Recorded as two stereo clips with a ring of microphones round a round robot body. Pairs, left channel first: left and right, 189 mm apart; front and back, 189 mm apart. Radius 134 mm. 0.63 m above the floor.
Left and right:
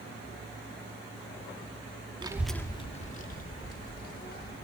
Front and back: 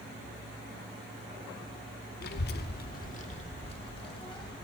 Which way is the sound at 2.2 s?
30° right.